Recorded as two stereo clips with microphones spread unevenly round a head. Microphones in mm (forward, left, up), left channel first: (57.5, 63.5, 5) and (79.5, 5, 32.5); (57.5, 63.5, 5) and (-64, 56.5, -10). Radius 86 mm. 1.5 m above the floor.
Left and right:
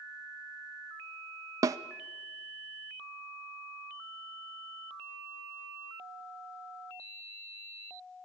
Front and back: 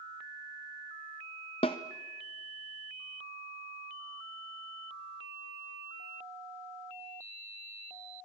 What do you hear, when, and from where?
1.6 s a snare drum: 55° right, 0.7 m